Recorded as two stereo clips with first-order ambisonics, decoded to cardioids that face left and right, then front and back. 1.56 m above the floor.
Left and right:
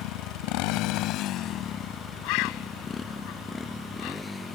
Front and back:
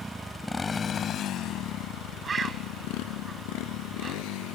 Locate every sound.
0.0 s a motorcycle: 100° left; by 4.6 s 10° left
2.2 s a bird: 105° left